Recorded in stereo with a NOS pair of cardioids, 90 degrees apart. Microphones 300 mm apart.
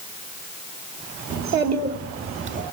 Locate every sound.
1.3 s a child speaking: 65° right, 1.7 m; by 2.6 s 40° right, 1.9 m